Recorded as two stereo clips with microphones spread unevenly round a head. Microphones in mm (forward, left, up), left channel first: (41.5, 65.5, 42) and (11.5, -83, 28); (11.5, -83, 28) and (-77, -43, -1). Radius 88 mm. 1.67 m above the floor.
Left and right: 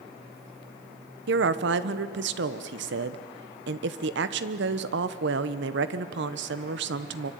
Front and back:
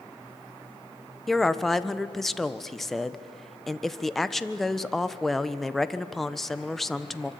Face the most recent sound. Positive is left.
turn(degrees=-110)